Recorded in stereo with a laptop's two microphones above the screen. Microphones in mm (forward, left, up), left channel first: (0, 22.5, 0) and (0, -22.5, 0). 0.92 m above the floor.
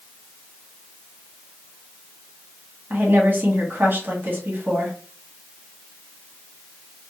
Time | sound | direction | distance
2.9 | a woman speaking | 50° right (ahead or behind) | 1.2 m